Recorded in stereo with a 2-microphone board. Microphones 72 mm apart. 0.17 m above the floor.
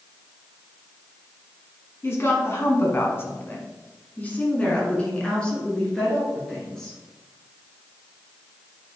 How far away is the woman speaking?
About 1.6 m.